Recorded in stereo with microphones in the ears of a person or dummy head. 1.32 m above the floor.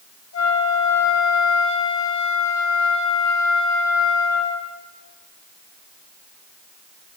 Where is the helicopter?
I don't hear a helicopter.